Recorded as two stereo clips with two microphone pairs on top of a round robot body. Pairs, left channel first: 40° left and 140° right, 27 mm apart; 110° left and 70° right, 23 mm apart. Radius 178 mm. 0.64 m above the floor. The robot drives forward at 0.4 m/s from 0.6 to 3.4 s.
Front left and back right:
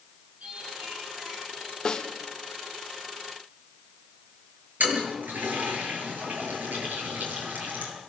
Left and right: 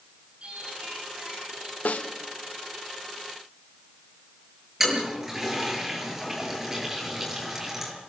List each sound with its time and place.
0.4 s singing: 110° right, 9 m
1.9 s a snare drum: 100° left, 1.5 m; by 2.1 s 105° left, 1.5 m
4.8 s a toilet flushing: 150° right, 7 m